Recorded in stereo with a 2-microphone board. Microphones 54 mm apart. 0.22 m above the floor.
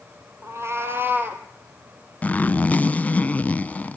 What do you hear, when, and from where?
0.4 s a cat meowing: 55° right (ahead or behind), 1.8 m; by 1.4 s 30° right (ahead or behind), 2 m
2.2 s a zipper: 25° left (ahead or behind), 0.6 m